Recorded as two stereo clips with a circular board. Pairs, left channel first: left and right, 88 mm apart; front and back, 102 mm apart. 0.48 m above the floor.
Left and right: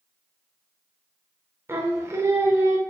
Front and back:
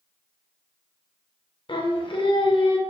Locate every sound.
1.7 s singing: 30° right, 0.5 m